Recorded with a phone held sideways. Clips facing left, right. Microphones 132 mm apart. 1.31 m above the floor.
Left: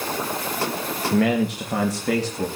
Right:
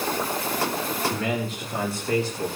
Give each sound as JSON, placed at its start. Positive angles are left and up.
{"t": 1.1, "sound": "a man speaking", "side_deg": 75, "distance_m": 2.0}